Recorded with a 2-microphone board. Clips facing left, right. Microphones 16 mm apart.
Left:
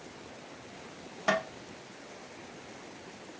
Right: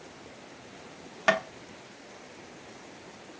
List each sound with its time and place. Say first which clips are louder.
1.3 s tapping: right 4 dB; 65° right (ahead or behind), 0.5 m